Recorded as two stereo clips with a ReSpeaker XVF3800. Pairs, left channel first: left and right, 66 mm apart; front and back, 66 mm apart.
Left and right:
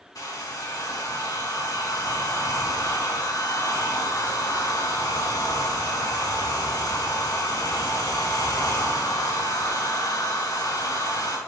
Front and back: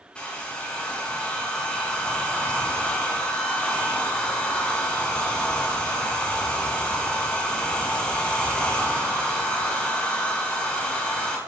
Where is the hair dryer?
70° left, 2.5 m.